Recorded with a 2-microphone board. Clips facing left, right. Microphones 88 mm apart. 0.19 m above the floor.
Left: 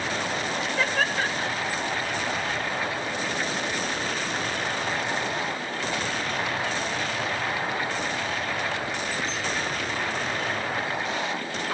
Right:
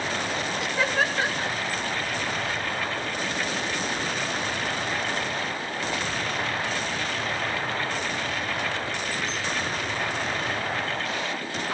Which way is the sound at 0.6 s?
10° right (ahead or behind).